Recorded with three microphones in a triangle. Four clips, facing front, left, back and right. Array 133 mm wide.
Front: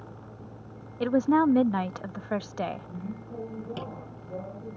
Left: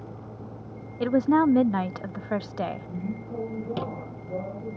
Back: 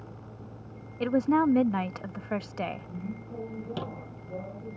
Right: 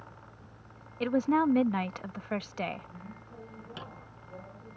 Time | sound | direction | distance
0.0 | a vehicle | 85° left | ?
1.0 | a woman speaking | 70° left | ?
3.8 | a squeak | 95° left | ?